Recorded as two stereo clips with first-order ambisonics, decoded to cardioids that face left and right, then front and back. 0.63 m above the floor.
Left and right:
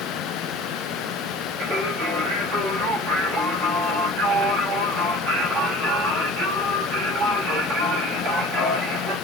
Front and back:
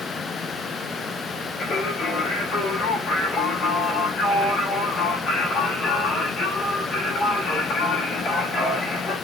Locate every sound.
1.6 s singing: 45° right, 1.8 m